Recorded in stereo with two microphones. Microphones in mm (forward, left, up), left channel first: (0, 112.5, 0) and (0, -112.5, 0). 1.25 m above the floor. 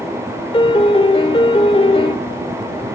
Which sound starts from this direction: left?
A piano, at 0.5 s.